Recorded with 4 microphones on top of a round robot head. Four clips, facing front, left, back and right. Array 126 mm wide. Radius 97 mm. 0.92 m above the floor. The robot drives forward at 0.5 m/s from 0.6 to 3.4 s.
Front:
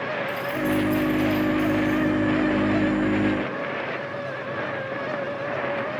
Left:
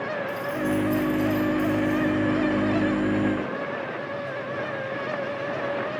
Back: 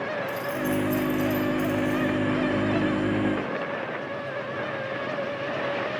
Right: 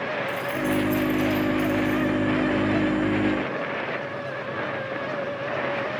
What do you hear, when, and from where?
0.3 s keys jangling: 120° right, 1.0 m; by 2.1 s 145° right, 1.5 m